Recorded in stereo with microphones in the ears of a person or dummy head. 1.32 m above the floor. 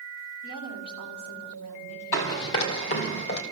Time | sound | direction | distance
0.4 | a woman speaking | 85° left | 5 m
2.1 | running footsteps | 55° left (ahead or behind) | 2.5 m